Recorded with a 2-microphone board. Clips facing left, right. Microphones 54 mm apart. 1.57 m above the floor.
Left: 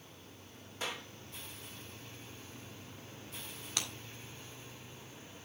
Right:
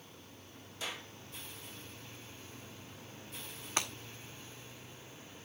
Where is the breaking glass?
30° right (ahead or behind), 1.9 m.